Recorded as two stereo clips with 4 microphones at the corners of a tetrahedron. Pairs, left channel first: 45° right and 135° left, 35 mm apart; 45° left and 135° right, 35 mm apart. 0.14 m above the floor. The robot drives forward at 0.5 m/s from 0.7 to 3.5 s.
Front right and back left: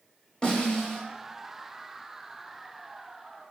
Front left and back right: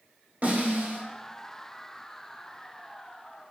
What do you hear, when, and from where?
0.4 s a snare drum: 110° right, 1.2 m; by 1.0 s 115° right, 1.3 m